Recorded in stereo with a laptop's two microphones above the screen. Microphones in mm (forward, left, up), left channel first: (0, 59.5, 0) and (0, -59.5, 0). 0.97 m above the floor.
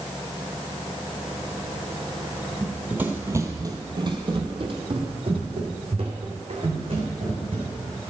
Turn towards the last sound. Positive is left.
turn(degrees=-50)  # may be behind; listen again after turning